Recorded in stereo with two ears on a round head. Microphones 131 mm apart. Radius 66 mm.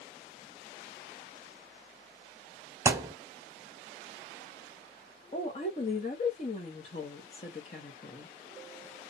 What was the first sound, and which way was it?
A thud, 20° right (ahead or behind).